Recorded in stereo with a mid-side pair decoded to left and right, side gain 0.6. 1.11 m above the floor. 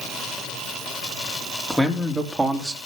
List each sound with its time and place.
1.7 s a man speaking: straight ahead, 3 m; by 2.8 s 15° right, 2.5 m